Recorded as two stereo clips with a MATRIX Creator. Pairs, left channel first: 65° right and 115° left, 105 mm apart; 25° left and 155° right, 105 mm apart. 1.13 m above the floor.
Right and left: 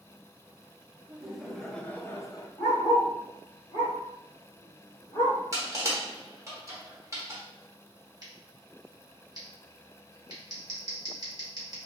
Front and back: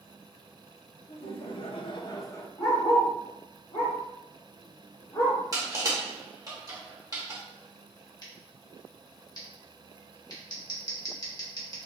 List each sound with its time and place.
1.1 s laughter: 35° left, 0.8 m; by 2.5 s 35° right, 0.5 m
2.6 s a dog barking: 5° right, 1.3 m
5.5 s crushing: 160° left, 0.9 m
8.2 s scissors: 65° left, 1.0 m